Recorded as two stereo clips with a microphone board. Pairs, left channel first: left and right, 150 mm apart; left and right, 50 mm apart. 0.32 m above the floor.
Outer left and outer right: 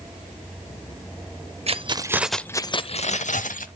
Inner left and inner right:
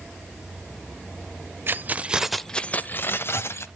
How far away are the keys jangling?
About 0.7 m.